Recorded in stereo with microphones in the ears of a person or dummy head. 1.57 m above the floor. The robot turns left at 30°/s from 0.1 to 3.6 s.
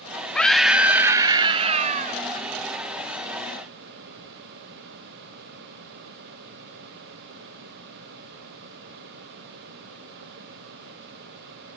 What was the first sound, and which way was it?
A scream, 5° left.